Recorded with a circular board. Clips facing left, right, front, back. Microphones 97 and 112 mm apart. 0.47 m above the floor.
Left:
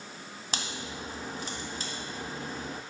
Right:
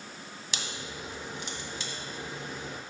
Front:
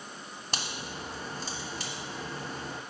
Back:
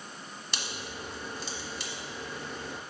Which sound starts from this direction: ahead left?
A crack, at 0.5 s.